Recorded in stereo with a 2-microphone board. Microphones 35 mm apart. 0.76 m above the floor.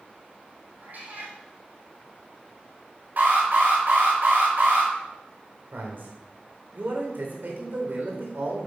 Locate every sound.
0.8 s a cat meowing: 55° right (ahead or behind), 4.5 m
3.2 s an alarm: 50° right (ahead or behind), 4.5 m
5.7 s a man speaking: 65° right (ahead or behind), 3.5 m